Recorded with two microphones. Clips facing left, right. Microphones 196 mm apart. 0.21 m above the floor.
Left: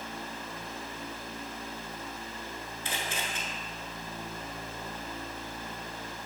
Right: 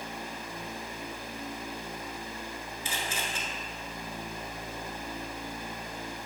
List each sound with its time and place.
2.9 s a camera shutter: 60° left (ahead or behind), 1.6 m